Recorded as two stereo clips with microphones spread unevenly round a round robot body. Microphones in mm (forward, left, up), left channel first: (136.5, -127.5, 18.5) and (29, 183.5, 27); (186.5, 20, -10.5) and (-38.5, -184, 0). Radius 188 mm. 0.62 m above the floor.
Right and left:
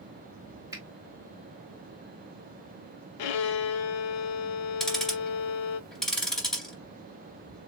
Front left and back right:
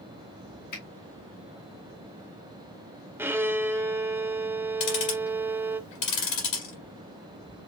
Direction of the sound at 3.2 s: 55° right.